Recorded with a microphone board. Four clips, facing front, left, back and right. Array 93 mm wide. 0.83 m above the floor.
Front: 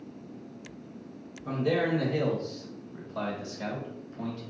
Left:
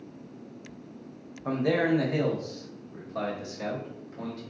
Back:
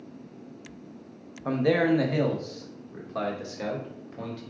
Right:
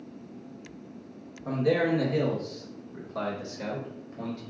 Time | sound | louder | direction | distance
1.4 | a man speaking | even, back 5 dB | 155° left | 0.9 m